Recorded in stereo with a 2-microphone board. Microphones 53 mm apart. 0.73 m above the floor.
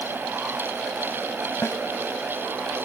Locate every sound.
1.6 s a snare drum: 60° left (ahead or behind)